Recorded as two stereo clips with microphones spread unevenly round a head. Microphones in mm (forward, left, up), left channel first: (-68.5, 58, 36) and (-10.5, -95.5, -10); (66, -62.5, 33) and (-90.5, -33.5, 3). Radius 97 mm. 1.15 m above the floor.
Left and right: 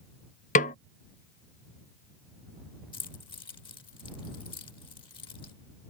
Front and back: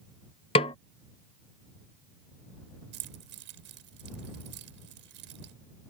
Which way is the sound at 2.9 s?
170° left.